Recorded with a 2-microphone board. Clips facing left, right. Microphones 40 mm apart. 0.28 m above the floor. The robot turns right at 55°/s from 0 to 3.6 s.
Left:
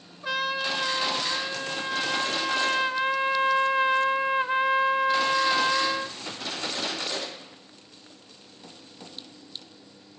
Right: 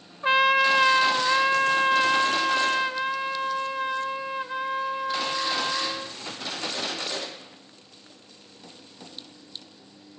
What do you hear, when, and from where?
0.2 s a trumpet: 140° right, 0.6 m; by 6.2 s 50° left, 0.6 m